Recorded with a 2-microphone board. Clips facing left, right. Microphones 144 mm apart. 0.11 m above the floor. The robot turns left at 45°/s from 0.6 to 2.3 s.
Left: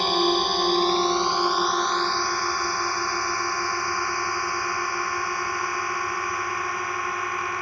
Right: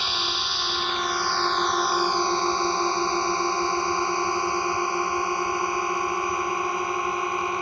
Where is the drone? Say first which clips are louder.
Left 10 dB; 45° left (ahead or behind); by 7.6 s 20° right (ahead or behind).